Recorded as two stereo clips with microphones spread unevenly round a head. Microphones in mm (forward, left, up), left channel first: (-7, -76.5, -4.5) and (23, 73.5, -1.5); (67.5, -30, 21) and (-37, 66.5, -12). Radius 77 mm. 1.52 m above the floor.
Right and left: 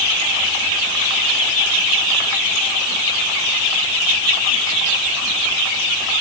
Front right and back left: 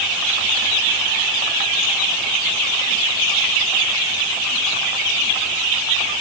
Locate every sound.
Only background noise.